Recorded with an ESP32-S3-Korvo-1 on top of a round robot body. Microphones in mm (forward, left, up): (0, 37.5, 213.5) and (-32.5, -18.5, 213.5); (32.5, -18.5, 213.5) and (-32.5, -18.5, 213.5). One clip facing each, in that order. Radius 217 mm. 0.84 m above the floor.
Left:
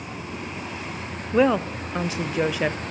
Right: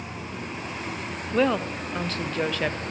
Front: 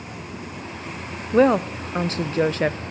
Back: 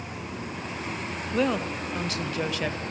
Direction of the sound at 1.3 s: 10° right.